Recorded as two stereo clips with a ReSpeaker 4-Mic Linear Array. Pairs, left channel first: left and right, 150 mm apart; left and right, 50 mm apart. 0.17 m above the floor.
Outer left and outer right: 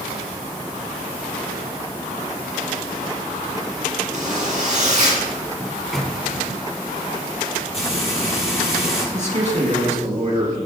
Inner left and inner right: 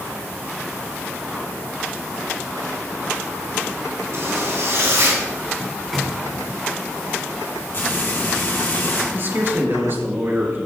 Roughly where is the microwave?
Centre.